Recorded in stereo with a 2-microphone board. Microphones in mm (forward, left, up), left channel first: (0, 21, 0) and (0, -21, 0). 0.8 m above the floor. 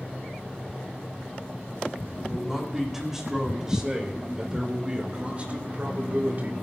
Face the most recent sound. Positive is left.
turn(degrees=-50)  # may be behind; listen again after turning